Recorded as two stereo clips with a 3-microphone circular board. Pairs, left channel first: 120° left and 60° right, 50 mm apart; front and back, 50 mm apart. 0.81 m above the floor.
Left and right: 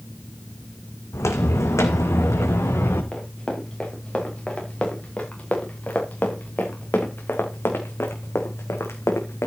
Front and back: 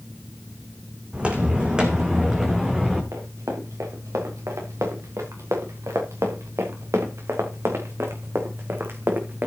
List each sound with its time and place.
1.1 s footsteps: 115° left, 2.5 m; by 3.0 s 100° left, 3.5 m
3.1 s running footsteps: 165° right, 6 m; by 9.5 s 135° left, 3.5 m